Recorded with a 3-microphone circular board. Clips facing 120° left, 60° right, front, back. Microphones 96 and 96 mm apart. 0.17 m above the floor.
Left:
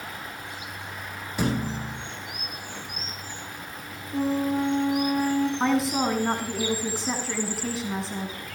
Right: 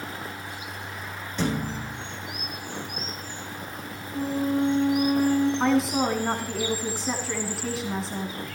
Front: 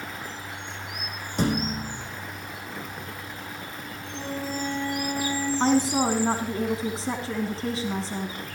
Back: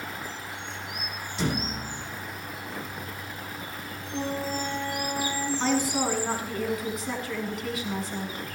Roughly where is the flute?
Behind left.